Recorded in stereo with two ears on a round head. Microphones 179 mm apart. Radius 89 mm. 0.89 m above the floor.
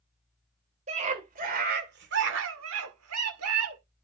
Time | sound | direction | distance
0.9 | a scream | 35° right (ahead or behind) | 3 m